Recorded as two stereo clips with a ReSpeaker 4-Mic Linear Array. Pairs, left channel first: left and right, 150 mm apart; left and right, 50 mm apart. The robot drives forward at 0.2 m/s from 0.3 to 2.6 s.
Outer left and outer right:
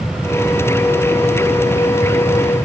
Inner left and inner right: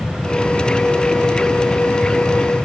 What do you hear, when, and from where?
Only background noise.